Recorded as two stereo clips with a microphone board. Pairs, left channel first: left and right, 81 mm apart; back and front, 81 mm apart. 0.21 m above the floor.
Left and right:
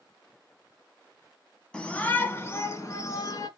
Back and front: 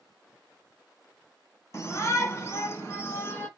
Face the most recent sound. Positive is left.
turn(degrees=125)